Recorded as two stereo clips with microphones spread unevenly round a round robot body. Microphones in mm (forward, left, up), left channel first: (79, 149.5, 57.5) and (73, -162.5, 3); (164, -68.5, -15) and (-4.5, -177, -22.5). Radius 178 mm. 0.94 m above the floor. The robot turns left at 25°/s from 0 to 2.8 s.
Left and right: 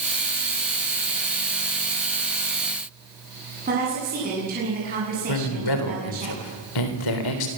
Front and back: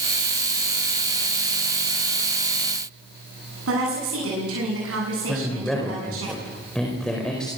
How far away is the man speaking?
About 4 m.